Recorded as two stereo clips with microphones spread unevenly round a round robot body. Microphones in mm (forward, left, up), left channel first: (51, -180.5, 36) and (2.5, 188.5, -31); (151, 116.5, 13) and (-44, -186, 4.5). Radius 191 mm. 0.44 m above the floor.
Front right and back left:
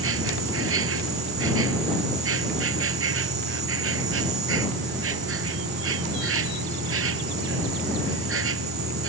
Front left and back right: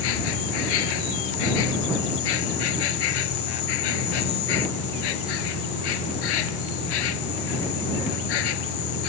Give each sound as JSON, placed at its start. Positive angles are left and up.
{"t": 0.0, "sound": "an insect", "azimuth_deg": 40}